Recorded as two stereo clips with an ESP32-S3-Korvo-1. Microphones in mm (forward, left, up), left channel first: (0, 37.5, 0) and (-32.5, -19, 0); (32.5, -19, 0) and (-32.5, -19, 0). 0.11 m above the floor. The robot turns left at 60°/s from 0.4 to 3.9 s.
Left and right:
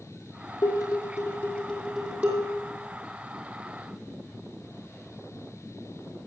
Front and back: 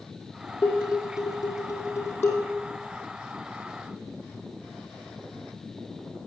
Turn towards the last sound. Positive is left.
turn(degrees=-160)